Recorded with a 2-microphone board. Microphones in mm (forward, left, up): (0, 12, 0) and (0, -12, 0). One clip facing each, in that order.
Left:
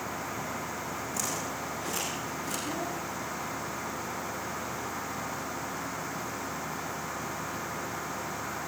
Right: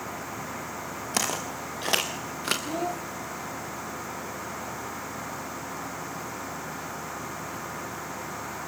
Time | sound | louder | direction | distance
1.1 | footsteps | right 7 dB | 85° right | 4.5 m
2.6 | a child speaking | right 3 dB | 70° right (ahead or behind) | 2.5 m